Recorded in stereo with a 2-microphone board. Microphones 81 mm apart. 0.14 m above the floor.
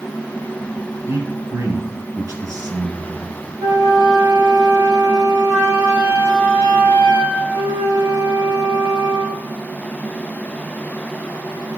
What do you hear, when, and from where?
1.1 s a man speaking: 35° right (ahead or behind), 1.8 m; by 3.5 s 55° right (ahead or behind), 3 m
3.6 s a flute: 40° right (ahead or behind), 3.5 m